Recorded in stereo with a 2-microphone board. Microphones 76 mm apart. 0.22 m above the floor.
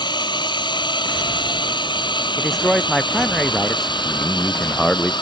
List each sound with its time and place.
0.0 s a drone: 70° left (ahead or behind); by 5.2 s 75° left (ahead or behind)
2.4 s a man speaking: 5° left (ahead or behind)
4.0 s a man speaking: 5° left (ahead or behind)